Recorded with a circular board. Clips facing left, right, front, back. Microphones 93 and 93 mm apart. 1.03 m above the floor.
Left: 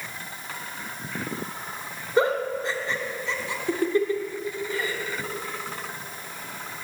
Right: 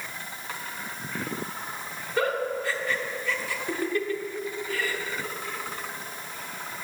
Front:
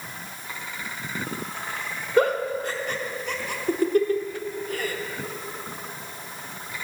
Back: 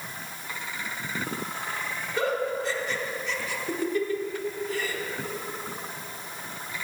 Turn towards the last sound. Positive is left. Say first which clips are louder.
# left 4 dB, front 6 dB
turn(degrees=25)